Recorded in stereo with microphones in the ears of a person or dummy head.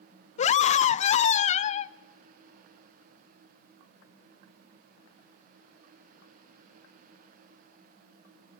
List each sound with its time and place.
0.4 s a scream: 45° left (ahead or behind), 0.8 m